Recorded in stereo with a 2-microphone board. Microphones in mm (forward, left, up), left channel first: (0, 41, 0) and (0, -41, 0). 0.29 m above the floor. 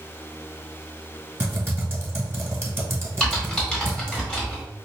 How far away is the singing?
No singing in this recording.